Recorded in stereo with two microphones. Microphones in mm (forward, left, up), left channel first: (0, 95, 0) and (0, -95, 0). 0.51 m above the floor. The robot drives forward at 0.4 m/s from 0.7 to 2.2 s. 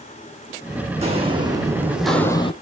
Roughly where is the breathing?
I don't hear breathing.